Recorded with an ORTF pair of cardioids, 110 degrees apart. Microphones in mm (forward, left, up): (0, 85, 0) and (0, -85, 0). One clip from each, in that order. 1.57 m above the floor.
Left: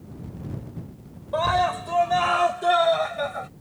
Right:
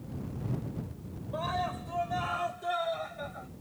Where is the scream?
65° left; by 3.5 s 70° left.